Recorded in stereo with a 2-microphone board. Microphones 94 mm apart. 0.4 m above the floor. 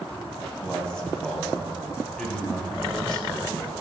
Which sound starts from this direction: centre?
A man speaking, at 0.6 s.